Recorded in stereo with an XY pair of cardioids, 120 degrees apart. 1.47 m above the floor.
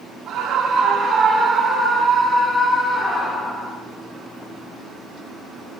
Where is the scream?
55° right, 2.5 m; by 3.7 s 25° left, 5 m.